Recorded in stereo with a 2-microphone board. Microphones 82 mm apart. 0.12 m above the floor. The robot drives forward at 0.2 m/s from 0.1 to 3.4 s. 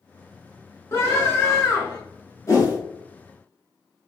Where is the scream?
30° left (ahead or behind), 1.5 m.